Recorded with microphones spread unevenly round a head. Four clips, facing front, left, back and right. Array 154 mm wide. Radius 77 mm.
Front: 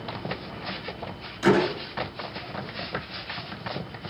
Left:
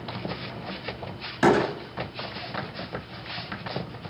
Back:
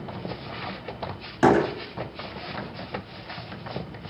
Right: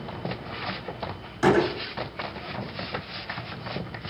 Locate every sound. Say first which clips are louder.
1.4 s a door slam: even, back 2 dB; 155° left, 5 m